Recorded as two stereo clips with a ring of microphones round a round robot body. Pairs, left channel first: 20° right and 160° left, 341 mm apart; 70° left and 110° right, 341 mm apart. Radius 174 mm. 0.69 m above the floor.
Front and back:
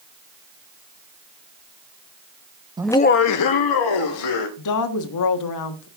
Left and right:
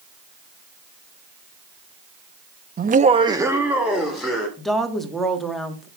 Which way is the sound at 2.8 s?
140° right.